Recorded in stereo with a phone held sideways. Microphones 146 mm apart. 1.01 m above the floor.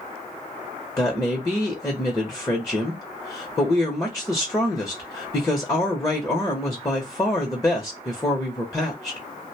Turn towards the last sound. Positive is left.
turn(degrees=20)  # may be behind; listen again after turning